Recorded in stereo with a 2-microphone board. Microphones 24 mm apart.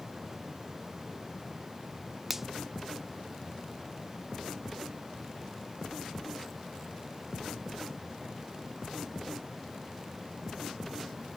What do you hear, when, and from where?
2.3 s a finger snap: 10° right (ahead or behind)